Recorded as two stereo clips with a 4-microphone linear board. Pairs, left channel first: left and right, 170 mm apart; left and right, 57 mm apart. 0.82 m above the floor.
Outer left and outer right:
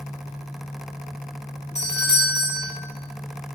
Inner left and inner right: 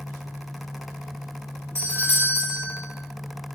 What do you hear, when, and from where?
1.8 s a doorbell: 45° left (ahead or behind), 2 m